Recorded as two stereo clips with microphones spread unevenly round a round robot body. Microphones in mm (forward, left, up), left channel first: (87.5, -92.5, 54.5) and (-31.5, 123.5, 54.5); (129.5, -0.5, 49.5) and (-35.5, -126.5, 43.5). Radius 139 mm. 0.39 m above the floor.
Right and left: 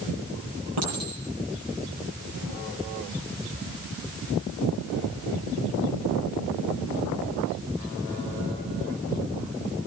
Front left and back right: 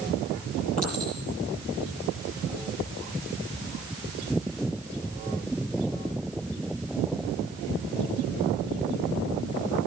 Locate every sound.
0.8 s a clink: 100° left, 8.5 m